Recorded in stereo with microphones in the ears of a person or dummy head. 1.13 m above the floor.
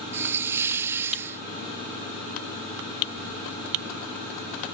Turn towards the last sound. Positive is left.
turn(degrees=-5)  # may be behind; listen again after turning